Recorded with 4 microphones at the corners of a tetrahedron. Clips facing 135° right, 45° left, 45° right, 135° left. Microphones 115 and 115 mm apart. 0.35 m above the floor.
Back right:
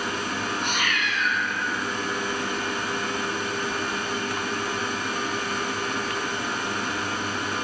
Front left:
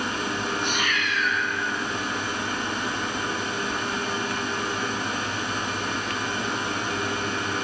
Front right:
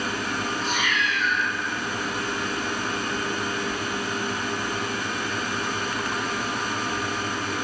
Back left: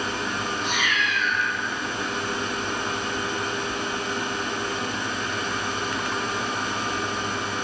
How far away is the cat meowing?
About 1.5 m.